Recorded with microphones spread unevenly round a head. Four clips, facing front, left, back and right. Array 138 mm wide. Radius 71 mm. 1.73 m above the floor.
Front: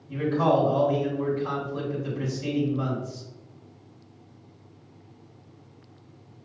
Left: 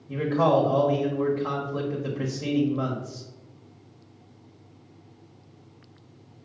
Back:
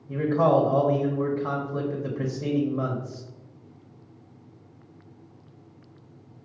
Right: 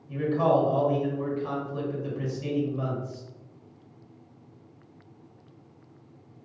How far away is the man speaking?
About 1.1 m.